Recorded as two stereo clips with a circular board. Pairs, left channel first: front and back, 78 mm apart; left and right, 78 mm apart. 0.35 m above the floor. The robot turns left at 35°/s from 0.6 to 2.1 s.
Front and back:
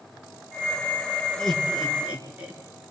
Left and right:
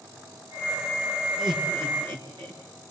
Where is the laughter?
80° right, 5.5 m; by 2.6 s 105° right, 5.5 m.